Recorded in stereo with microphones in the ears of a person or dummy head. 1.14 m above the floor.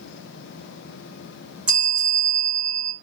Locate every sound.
1.7 s a bell: 5° right (ahead or behind), 1.2 m